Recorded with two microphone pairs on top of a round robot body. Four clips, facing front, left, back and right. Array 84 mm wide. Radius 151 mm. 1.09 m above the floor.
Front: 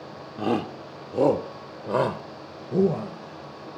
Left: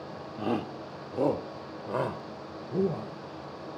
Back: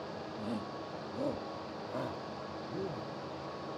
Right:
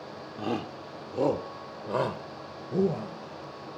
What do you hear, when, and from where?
0.4 s a shout: straight ahead; by 3.8 s 20° right